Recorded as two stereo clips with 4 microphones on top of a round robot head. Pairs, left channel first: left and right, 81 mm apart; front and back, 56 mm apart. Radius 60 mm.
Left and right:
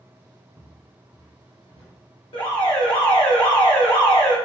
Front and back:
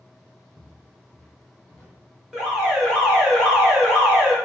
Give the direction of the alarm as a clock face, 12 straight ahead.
9 o'clock.